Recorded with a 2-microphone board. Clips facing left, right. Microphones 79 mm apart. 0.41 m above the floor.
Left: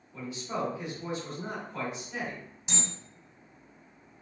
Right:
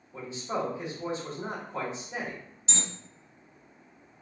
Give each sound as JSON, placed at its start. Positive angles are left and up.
{"t": 0.1, "sound": "a man speaking", "side_deg": -30, "distance_m": 1.5}
{"t": 2.7, "sound": "an alarm", "side_deg": 15, "distance_m": 1.8}